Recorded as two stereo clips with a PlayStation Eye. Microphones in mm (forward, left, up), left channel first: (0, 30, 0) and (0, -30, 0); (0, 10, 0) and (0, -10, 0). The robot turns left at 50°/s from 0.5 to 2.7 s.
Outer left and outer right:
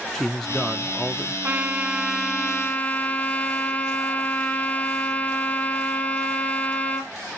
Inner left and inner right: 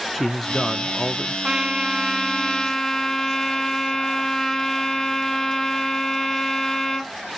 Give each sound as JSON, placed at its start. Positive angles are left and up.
{"t": 0.1, "sound": "a man speaking", "side_deg": 5, "distance_m": 0.7}
{"t": 1.4, "sound": "a trumpet", "azimuth_deg": -140, "distance_m": 1.0}